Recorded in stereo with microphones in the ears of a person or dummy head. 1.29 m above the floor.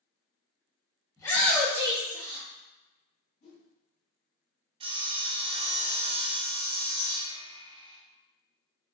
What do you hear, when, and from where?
1.2 s a shout: 20° left (ahead or behind), 1.2 m; by 2.5 s 70° right (ahead or behind), 0.9 m
3.4 s a whoosh: 45° left (ahead or behind), 1.0 m
4.8 s sawing: 25° right (ahead or behind), 0.6 m